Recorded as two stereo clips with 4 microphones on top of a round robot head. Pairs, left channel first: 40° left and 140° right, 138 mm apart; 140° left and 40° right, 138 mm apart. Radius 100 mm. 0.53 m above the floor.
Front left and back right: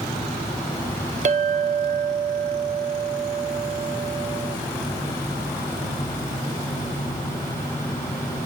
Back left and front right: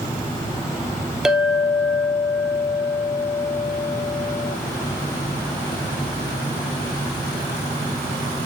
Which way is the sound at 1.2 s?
125° right.